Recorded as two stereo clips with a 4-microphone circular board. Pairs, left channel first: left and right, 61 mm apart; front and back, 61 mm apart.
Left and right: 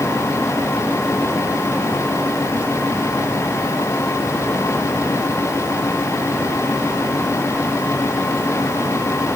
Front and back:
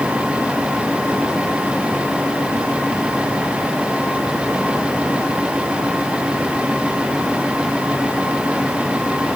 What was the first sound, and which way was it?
Only background noise.